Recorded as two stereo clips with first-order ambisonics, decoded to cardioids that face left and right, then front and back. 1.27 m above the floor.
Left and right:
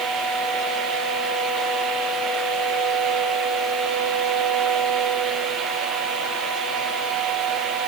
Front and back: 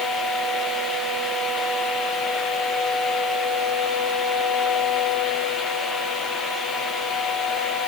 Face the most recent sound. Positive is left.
No sound to turn to.